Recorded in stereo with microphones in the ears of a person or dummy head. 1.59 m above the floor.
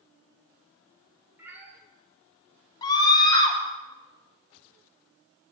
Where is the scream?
25° left (ahead or behind), 1.8 m.